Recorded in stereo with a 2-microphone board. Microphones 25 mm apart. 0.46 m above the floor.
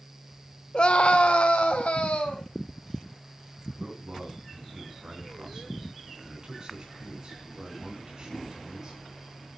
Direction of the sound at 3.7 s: 30° right (ahead or behind).